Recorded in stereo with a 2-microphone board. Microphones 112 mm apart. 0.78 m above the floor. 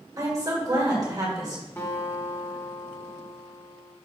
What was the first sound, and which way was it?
A woman speaking, 30° right (ahead or behind).